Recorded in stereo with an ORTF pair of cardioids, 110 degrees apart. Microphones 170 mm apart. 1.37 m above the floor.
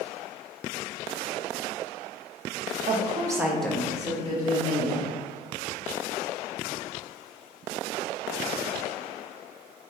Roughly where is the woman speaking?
Ahead right.